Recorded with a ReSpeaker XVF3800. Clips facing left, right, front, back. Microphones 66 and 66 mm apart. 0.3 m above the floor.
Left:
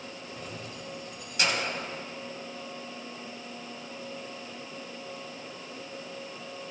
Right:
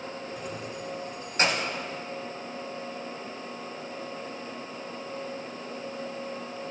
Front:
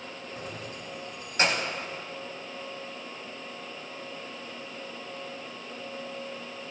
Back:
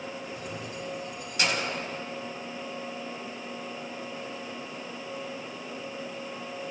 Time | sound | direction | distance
0.4 | keys jangling | 15° right | 0.8 m